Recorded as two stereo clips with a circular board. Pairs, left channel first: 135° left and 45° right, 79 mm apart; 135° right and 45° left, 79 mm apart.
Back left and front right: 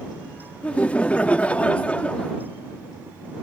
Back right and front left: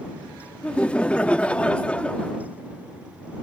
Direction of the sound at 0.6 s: 175° left.